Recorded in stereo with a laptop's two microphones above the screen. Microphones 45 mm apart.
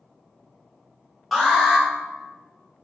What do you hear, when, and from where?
1.3 s an alarm: centre (ahead or behind), 1.0 m